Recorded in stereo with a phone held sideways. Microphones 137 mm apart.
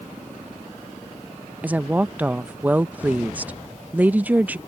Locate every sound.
1.6 s a woman speaking: 10° right (ahead or behind)